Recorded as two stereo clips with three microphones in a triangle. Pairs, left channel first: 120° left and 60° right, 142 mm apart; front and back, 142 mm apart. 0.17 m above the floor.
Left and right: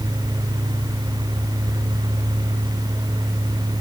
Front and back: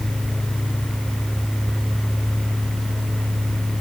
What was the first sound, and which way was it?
Only background noise.